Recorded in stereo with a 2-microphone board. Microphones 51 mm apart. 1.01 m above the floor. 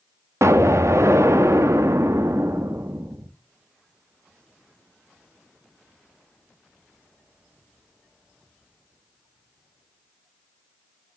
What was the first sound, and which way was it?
An explosion, 70° right (ahead or behind).